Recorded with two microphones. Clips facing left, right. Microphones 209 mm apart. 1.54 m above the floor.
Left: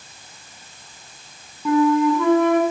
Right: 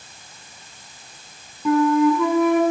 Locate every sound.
1.6 s a flute: 5° right (ahead or behind), 6.5 m